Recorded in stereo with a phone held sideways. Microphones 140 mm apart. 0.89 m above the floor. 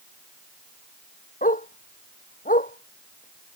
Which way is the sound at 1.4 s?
80° left.